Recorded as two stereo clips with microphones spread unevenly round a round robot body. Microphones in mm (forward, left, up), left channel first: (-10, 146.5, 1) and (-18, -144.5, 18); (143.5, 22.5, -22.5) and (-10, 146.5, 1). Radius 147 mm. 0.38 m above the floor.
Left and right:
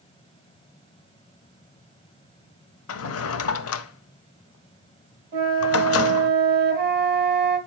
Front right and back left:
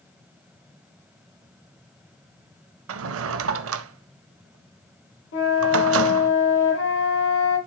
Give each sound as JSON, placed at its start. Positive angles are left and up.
{"t": 2.9, "sound": "a drawer", "azimuth_deg": 135, "distance_m": 0.5}
{"t": 5.3, "sound": "a flute", "azimuth_deg": -30, "distance_m": 3.0}